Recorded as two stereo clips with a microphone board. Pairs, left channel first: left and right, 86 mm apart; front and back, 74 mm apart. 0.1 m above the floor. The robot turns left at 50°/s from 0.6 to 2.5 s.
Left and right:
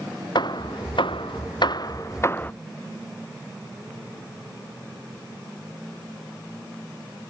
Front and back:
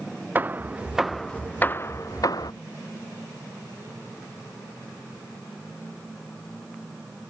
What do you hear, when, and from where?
0.3 s hammering: 115° left; by 2.5 s 20° left